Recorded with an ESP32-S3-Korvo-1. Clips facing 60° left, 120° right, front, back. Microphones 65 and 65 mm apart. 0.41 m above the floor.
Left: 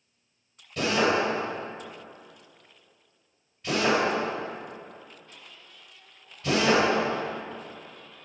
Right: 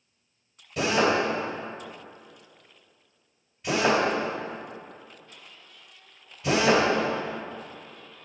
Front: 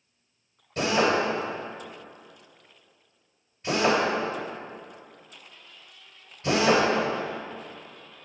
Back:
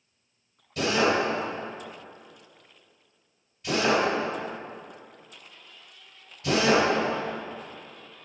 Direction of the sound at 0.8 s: 40° right.